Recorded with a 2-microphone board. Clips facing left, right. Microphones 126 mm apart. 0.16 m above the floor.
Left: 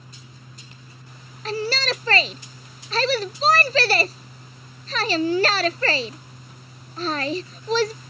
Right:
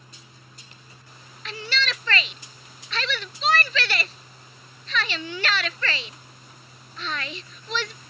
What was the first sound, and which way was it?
A shout, 40° left (ahead or behind).